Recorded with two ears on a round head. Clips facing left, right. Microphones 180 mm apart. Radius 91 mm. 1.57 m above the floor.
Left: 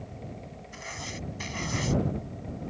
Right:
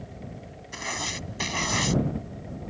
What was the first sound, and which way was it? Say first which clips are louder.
Writing: right 6 dB; 65° right (ahead or behind).